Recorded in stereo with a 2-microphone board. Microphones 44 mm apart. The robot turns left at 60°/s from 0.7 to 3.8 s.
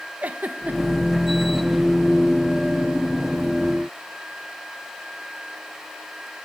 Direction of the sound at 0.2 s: 35° right (ahead or behind).